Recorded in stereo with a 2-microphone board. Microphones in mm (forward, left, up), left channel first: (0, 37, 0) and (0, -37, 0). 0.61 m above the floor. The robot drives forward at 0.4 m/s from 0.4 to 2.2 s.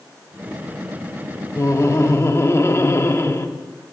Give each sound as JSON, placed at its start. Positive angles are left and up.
{"t": 1.6, "sound": "laughter", "side_deg": 40, "distance_m": 0.8}